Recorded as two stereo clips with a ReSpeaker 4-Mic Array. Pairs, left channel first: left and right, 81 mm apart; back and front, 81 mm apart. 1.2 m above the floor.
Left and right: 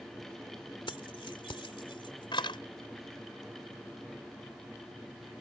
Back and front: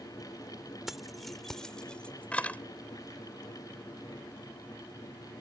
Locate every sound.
0.9 s keys jangling: 85° left; by 2.6 s 110° left